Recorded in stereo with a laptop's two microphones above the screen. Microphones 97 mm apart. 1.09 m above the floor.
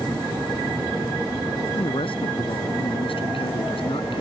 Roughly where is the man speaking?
Left.